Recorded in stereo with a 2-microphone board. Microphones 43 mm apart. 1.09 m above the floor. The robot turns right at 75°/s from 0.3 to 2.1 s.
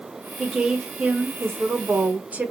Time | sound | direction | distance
0.4 | a woman speaking | straight behind | 1.1 m